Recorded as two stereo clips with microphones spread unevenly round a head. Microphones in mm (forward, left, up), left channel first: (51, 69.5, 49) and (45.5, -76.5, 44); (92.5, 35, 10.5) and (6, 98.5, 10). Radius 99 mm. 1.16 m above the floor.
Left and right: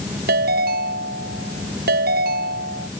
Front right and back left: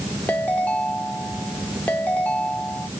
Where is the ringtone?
120° right.